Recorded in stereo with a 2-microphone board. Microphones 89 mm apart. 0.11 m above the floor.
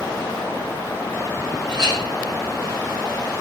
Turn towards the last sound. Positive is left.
turn(degrees=-60)  # may be behind; listen again after turning